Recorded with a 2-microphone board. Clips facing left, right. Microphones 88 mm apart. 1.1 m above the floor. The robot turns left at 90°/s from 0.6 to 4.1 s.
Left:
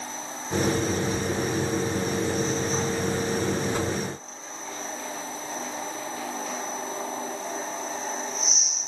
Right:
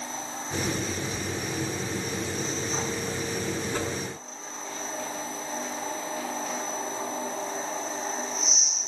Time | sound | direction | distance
3.7 | a whoosh | 15° left (ahead or behind) | 5 m